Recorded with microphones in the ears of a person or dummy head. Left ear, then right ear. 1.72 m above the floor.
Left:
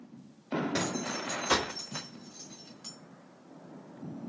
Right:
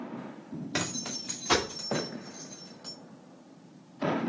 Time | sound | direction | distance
0.7 | keys jangling | 10° right (ahead or behind) | 2.5 m